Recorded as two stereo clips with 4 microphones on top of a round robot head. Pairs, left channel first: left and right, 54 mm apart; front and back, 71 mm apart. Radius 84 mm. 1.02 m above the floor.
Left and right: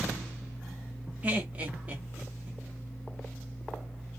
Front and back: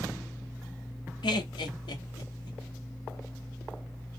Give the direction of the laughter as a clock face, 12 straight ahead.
1 o'clock.